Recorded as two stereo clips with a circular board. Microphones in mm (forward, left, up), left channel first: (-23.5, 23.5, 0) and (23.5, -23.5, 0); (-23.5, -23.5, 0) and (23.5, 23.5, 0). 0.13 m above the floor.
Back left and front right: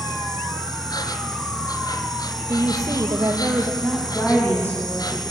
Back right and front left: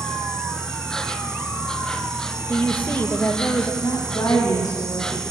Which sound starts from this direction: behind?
A woman speaking, at 3.8 s.